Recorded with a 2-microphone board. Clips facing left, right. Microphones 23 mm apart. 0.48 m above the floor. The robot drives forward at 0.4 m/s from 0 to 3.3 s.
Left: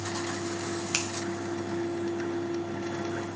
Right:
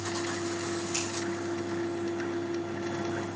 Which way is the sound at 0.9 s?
60° left (ahead or behind).